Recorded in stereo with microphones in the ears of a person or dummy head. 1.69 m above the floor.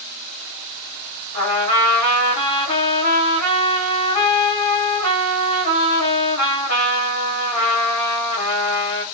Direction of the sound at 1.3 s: 40° left (ahead or behind).